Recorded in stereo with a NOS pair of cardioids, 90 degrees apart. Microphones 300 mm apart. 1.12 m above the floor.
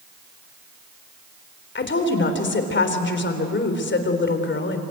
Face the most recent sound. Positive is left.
turn(degrees=40)